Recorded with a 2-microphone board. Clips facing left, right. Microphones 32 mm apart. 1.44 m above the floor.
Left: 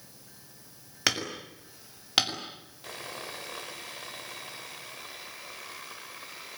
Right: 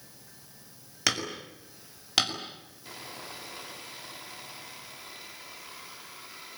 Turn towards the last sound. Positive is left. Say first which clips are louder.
# left 3 dB
turn(degrees=90)